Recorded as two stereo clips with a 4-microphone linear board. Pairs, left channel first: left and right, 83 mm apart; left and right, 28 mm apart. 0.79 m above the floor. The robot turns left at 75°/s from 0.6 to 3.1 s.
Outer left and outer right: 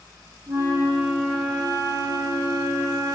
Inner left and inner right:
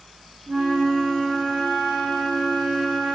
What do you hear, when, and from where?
0.5 s a flute: 130° right, 0.7 m; by 3.2 s 40° left, 0.7 m